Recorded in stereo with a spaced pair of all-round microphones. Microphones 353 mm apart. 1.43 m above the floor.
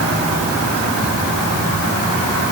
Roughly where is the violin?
I don't hear a violin.